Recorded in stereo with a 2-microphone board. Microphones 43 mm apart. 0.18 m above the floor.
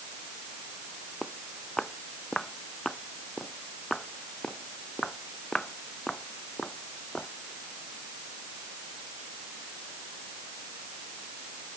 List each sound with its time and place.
1.2 s footsteps: 10° left (ahead or behind); by 7.3 s 20° left (ahead or behind)